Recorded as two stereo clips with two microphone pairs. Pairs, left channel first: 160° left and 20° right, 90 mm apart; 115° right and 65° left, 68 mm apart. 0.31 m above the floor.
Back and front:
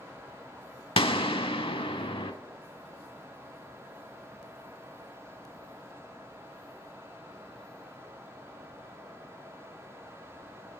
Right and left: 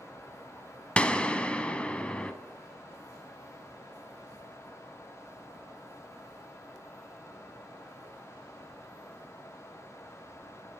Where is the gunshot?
170° left, 0.5 m.